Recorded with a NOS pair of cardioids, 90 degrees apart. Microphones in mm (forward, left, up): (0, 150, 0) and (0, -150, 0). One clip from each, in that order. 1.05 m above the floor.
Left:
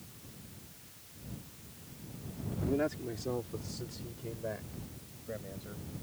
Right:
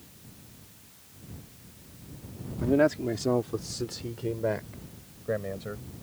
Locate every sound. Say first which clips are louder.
2.6 s a man speaking: right 10 dB; 60° right; by 5.8 s 75° right